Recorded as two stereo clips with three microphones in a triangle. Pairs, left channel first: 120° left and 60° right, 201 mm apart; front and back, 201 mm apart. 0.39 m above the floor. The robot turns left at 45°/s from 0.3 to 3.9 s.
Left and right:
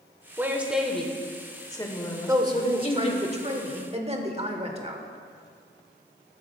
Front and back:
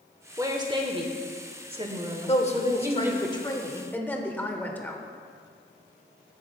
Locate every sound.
0.4 s a woman speaking: 125° right, 1.0 m; by 3.3 s 105° left, 1.0 m
2.3 s a woman speaking: straight ahead, 1.1 m; by 5.0 s 75° right, 1.1 m